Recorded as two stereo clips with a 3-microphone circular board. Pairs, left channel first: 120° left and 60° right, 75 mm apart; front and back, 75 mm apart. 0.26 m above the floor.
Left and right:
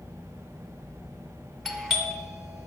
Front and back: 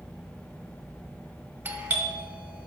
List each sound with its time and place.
1.6 s a doorbell: 145° right, 1.7 m